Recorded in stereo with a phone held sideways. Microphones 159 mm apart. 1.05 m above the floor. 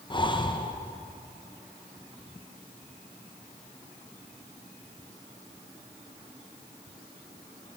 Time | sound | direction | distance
0.1 | breathing | 30° left (ahead or behind) | 0.5 m